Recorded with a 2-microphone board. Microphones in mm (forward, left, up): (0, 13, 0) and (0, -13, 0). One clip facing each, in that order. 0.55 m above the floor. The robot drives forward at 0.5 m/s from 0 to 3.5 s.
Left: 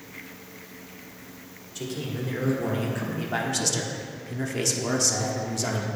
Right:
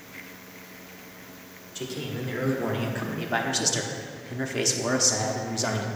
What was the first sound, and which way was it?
A man speaking, 5° right (ahead or behind).